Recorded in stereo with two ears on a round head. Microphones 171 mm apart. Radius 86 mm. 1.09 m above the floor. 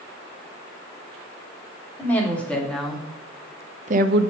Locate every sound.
2.0 s a woman speaking: 10° left (ahead or behind), 2.5 m; by 4.3 s 70° right (ahead or behind), 0.7 m